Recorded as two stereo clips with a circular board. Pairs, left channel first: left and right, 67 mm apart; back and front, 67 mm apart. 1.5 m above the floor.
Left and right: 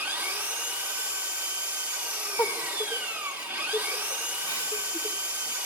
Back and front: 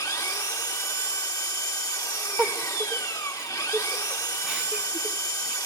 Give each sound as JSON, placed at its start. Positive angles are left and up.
{"t": 0.0, "sound": "an engine running", "azimuth_deg": -160, "distance_m": 3.0}
{"t": 2.4, "sound": "a giggle", "azimuth_deg": 70, "distance_m": 1.8}